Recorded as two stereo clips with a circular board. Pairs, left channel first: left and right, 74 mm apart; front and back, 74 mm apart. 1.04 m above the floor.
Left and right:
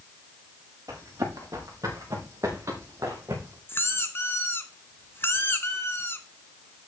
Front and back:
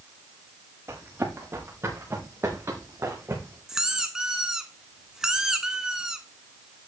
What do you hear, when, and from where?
0.9 s running footsteps: 130° right, 6 m; by 3.6 s 135° right, 3.5 m
3.7 s a squeak: 105° left, 1.1 m